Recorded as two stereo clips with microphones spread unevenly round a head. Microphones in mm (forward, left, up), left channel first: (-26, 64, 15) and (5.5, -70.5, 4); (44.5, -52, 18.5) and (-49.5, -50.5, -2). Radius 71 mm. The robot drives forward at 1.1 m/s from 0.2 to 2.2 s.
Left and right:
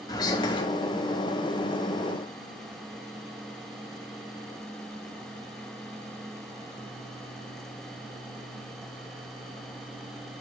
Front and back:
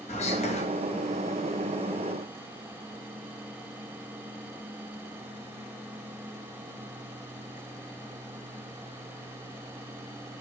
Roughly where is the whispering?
Ahead left.